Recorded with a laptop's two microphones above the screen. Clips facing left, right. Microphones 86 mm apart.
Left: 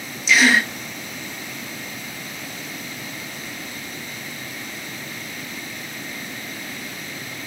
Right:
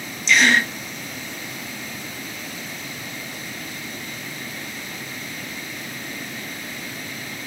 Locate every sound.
0.3 s a gasp: 5° left (ahead or behind), 1.5 m